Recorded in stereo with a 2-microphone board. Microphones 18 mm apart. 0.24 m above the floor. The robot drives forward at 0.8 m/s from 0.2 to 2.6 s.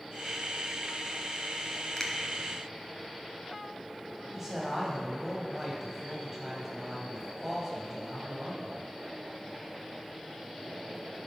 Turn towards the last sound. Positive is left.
turn(degrees=-15)  # may be behind; listen again after turning